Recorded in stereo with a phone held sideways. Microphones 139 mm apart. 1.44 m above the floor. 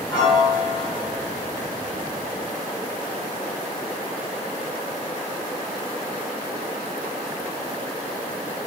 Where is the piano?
30° left (ahead or behind), 0.9 m.